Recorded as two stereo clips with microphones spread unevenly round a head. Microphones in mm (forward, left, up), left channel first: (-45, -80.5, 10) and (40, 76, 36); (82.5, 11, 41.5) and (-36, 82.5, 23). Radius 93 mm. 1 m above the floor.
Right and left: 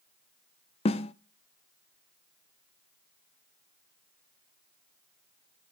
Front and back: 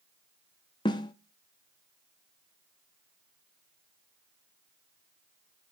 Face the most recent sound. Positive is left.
turn(degrees=-65)